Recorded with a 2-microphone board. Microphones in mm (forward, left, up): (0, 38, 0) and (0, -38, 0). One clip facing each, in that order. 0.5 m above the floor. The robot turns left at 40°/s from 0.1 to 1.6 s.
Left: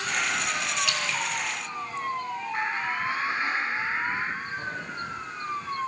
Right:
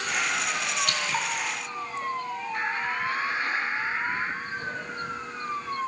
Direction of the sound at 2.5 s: 25° left (ahead or behind).